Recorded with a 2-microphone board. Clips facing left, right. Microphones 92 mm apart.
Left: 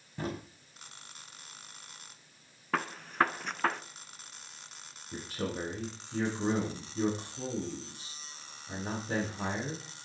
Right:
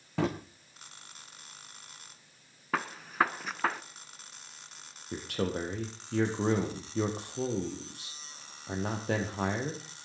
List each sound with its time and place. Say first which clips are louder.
0.2 s a drawer: right 8 dB; 85° right, 3 m
2.7 s a gunshot: even; 5° right (ahead or behind), 0.9 m
5.1 s a man speaking: right 4 dB; 65° right (ahead or behind), 5 m